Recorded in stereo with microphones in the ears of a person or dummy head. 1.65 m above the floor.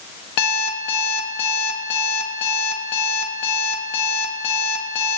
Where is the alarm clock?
50° left (ahead or behind), 1.5 m.